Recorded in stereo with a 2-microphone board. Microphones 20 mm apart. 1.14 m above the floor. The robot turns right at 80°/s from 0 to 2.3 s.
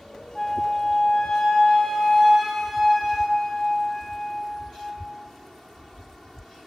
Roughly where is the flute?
Ahead.